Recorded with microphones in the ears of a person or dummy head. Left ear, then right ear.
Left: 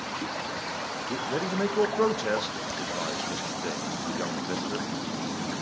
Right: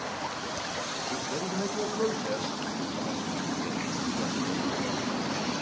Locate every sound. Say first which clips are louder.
1.1 s a man speaking: left 2 dB; 50° left (ahead or behind), 0.8 m